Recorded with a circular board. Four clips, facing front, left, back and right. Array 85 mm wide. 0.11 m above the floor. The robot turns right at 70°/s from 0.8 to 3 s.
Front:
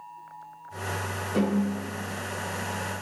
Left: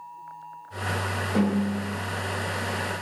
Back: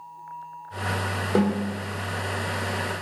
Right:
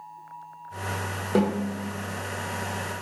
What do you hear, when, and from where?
1.4 s a snare drum: 135° right, 1.5 m; by 1.8 s 105° right, 1.5 m